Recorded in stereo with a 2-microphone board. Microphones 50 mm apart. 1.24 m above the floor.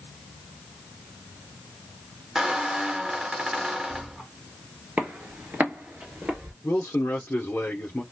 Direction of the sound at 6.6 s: 40° left (ahead or behind).